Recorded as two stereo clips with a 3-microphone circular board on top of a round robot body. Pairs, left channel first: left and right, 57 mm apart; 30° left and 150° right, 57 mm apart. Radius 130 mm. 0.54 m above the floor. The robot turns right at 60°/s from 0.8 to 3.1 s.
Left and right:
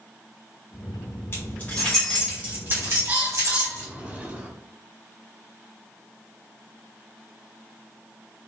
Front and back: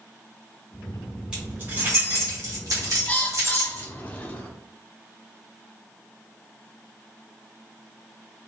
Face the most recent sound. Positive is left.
turn(degrees=-30)